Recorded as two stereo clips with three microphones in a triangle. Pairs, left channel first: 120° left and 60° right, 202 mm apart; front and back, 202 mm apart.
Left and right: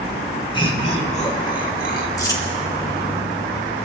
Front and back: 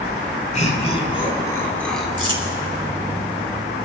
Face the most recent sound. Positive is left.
turn(degrees=-170)